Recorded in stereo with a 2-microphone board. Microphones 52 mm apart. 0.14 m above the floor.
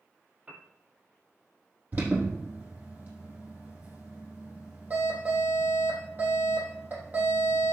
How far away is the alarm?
About 5 m.